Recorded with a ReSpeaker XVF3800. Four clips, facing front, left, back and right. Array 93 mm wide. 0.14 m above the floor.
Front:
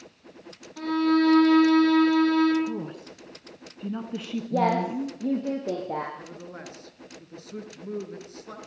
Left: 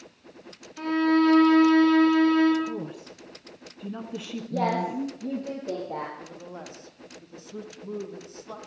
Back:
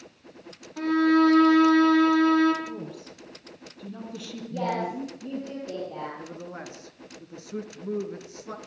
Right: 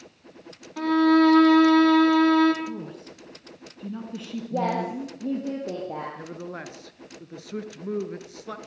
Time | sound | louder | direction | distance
0.8 | a violin | right 4 dB, back 2 dB | 100° right | 4.5 m
2.6 | a woman speaking | left 1 dB, front 4 dB | 20° left | 1.8 m
4.5 | a woman speaking | even, front 5 dB | 20° right | 5 m
6.2 | a man speaking | right 4 dB, back 2 dB | 100° right | 2.5 m